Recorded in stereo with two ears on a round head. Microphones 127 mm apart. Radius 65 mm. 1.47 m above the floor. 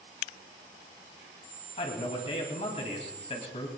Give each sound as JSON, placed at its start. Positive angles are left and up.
{"t": 1.8, "sound": "a man speaking", "side_deg": 40, "distance_m": 3.0}